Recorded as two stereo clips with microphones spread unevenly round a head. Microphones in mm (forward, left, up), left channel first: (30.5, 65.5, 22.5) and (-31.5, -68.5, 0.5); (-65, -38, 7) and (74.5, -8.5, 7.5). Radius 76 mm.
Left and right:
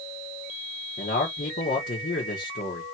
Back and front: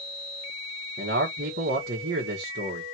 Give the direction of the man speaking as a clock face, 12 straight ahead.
11 o'clock.